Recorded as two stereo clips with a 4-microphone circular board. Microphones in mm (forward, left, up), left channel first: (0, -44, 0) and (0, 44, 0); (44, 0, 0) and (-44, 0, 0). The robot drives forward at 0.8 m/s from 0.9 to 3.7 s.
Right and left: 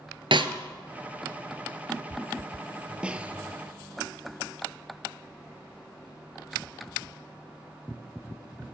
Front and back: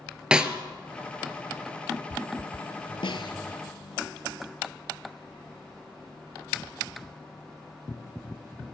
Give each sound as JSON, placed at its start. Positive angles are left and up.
{"t": 0.3, "sound": "a snare drum", "azimuth_deg": 100, "distance_m": 0.9}
{"t": 3.0, "sound": "a snare drum", "azimuth_deg": 15, "distance_m": 0.8}